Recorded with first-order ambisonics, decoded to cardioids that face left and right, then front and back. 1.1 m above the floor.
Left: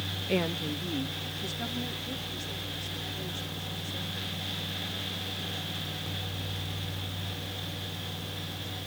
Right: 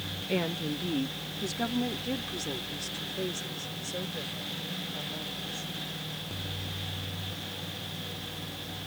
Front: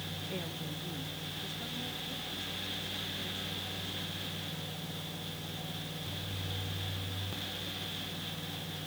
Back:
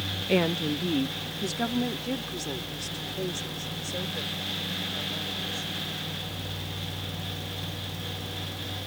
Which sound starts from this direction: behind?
A woman speaking, at 0.3 s.